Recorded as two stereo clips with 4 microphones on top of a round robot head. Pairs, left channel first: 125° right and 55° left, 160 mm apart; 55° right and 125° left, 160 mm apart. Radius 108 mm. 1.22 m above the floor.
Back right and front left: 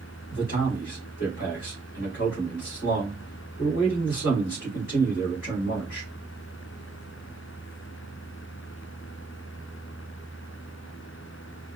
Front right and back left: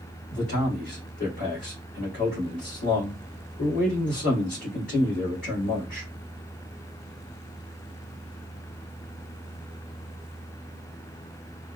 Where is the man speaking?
90° right, 2 m.